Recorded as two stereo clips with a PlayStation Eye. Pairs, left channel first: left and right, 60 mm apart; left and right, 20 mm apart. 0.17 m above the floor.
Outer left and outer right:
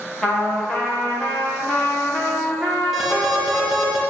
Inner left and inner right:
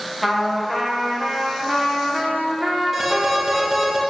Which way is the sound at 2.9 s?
5° right (ahead or behind).